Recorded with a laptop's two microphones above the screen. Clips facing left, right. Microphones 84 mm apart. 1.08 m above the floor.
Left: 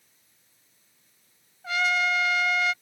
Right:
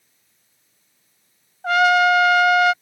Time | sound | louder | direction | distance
1.6 | a trumpet | right 11 dB | 65° right (ahead or behind) | ?